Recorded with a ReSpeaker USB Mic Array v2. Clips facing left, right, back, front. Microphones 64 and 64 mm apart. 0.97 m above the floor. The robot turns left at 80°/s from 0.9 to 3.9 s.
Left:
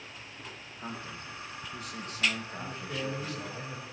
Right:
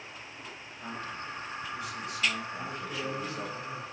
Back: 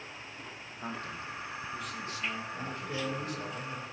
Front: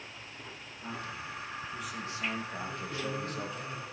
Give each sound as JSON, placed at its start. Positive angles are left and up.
{"t": 0.8, "sound": "a man speaking", "azimuth_deg": 160, "distance_m": 1.3}
{"t": 2.5, "sound": "a man speaking", "azimuth_deg": -170, "distance_m": 4.0}